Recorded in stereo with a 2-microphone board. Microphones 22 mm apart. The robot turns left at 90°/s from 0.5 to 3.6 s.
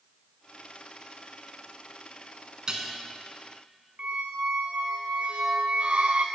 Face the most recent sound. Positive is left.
turn(degrees=-80)